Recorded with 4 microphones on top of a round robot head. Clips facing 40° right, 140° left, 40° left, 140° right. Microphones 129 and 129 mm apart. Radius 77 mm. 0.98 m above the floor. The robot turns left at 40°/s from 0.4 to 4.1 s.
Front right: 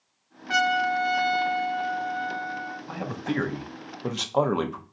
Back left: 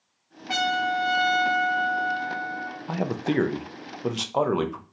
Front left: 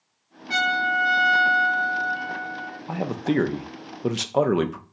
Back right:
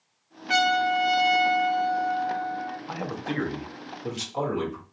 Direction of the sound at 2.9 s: 105° left.